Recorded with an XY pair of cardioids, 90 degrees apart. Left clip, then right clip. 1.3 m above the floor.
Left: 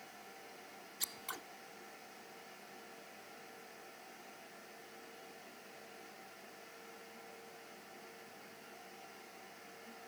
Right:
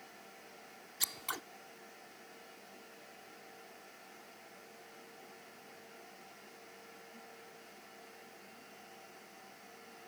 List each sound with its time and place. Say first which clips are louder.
1.0 s scissors: right 6 dB; 50° right